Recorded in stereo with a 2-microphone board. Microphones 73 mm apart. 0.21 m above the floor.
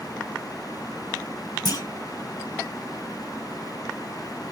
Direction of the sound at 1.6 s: 60° left (ahead or behind).